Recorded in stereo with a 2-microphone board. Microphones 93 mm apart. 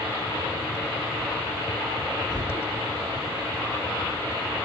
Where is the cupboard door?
30° left (ahead or behind), 0.8 m.